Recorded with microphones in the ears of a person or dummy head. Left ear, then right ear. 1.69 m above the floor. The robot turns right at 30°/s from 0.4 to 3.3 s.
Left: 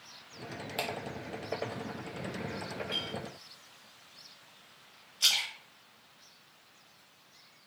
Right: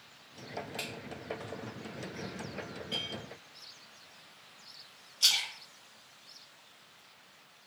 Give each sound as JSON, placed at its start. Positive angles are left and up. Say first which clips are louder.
{"t": 0.8, "sound": "a finger snap", "louder": "left 6 dB", "side_deg": 20, "distance_m": 0.5}
{"t": 2.9, "sound": "a clink", "louder": "even", "side_deg": 20, "distance_m": 1.4}
{"t": 5.2, "sound": "a splash", "louder": "even", "side_deg": 10, "distance_m": 0.7}